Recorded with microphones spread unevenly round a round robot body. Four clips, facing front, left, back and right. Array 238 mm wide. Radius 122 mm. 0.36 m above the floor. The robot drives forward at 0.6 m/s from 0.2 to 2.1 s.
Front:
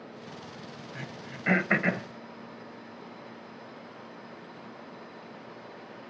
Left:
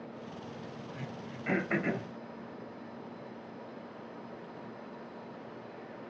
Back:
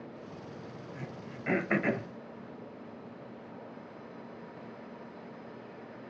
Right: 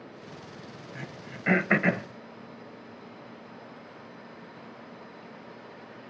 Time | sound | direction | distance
0.9 | throat clearing | 40° right | 1.1 m